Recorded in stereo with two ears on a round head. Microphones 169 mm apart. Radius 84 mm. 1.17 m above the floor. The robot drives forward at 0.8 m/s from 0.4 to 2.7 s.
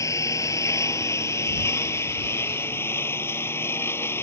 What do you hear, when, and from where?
0.0 s a lawn mower: 15° left (ahead or behind)